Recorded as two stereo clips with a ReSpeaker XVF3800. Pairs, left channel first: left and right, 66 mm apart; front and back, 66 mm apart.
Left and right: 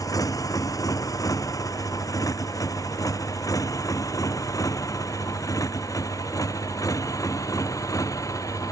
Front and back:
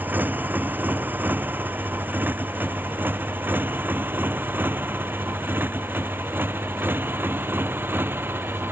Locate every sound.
0.0 s a motorcycle: 120° left